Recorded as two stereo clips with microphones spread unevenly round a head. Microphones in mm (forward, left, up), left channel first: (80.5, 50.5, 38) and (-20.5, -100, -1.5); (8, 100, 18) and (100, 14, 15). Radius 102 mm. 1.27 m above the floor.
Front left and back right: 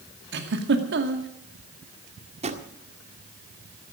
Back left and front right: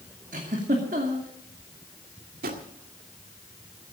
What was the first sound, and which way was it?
A giggle, 100° right.